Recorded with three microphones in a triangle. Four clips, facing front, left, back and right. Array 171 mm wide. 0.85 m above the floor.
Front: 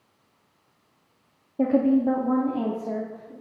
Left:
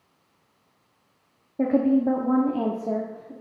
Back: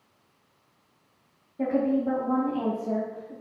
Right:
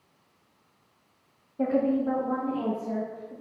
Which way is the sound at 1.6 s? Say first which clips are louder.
Left 4 dB, front 4 dB; 45° left.